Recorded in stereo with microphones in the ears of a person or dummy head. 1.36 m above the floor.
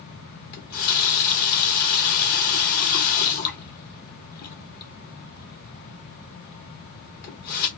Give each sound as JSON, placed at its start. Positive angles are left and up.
{"t": 0.5, "sound": "a running tap", "side_deg": 45, "distance_m": 0.8}